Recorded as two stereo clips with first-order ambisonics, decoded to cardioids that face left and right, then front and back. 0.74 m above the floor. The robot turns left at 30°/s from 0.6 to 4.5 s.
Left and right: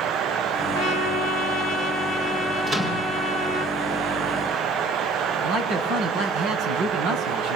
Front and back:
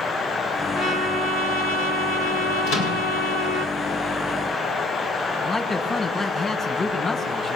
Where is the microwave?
20° right, 7.5 m; by 3.0 s 30° right, 7.5 m.